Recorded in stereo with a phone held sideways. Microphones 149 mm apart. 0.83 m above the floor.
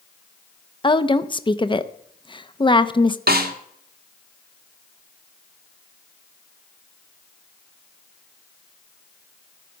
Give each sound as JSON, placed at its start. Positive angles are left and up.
{"t": 0.8, "sound": "a woman speaking", "side_deg": 30, "distance_m": 0.7}
{"t": 3.3, "sound": "a snare drum", "side_deg": -80, "distance_m": 1.5}